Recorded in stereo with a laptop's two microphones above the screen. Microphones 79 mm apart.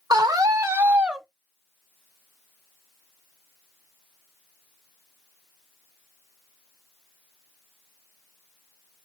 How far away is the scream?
About 0.8 m.